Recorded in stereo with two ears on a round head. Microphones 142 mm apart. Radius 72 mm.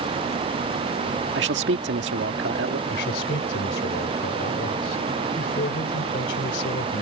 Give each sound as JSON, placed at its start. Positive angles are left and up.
{"t": 1.4, "sound": "a man speaking", "side_deg": -90}
{"t": 2.9, "sound": "a man speaking", "side_deg": 75}